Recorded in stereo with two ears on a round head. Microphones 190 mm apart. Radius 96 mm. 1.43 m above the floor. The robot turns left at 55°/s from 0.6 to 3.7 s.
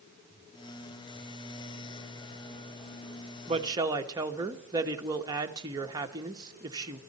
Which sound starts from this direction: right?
A woman speaking, at 3.5 s.